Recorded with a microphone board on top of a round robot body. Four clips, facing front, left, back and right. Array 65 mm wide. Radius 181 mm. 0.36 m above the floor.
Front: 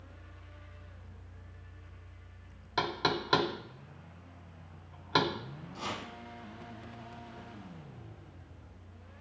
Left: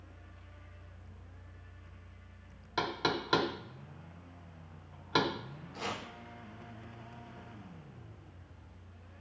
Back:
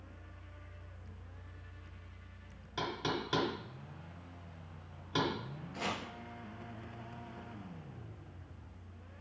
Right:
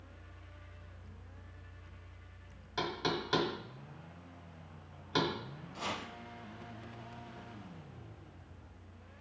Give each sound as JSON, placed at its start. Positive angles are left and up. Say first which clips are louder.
{"t": 2.8, "sound": "knocking", "louder": "left 2 dB, front 5 dB", "azimuth_deg": 35, "distance_m": 1.2}
{"t": 5.7, "sound": "chopping", "louder": "even, even", "azimuth_deg": 165, "distance_m": 2.0}